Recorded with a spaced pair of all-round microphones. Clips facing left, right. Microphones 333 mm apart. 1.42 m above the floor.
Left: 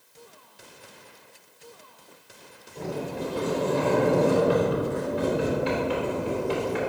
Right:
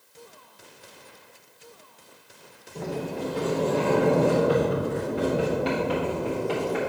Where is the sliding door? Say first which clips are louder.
Right 1 dB; 80° right, 3.5 m.